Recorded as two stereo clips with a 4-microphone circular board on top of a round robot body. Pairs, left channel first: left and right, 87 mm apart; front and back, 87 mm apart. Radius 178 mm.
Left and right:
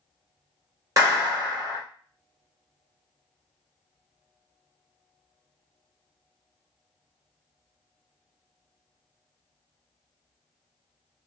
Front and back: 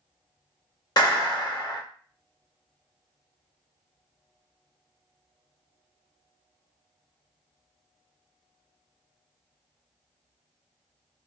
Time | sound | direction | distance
1.0 | a clap | 40° right | 1.9 m